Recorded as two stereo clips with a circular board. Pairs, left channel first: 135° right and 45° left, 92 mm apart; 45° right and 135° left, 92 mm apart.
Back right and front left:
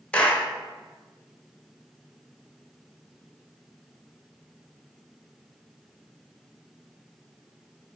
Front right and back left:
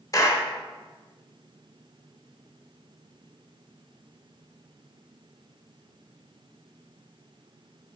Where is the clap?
65° right, 1.0 m.